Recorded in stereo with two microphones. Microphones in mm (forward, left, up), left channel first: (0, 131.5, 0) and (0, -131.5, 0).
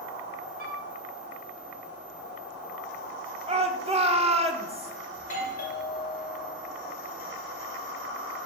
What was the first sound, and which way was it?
A flute, 35° right (ahead or behind).